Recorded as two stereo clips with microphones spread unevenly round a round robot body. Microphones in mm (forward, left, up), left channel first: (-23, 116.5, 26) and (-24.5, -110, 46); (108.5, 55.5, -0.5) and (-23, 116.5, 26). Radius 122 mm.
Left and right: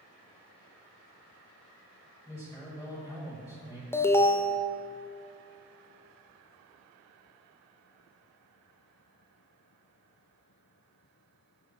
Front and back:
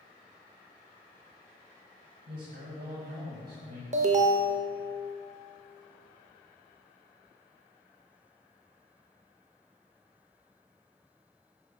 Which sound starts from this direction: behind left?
An alarm, at 3.9 s.